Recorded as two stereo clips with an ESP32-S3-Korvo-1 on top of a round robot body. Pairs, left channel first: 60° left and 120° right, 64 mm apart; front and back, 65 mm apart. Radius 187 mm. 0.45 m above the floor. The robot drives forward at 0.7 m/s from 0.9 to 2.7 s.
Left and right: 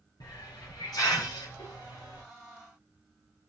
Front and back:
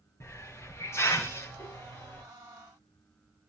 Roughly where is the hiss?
Ahead left.